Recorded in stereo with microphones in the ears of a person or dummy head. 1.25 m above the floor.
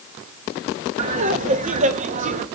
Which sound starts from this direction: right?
Laughter, at 1.0 s.